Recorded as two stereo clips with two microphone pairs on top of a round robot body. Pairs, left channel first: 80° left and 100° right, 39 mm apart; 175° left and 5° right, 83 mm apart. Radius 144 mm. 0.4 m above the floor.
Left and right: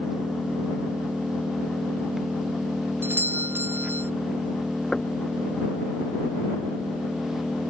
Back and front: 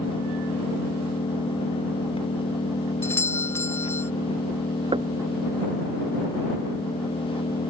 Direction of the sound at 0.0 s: Straight behind.